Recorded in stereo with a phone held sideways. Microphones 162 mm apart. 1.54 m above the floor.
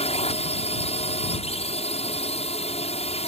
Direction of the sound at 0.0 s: 40° left (ahead or behind).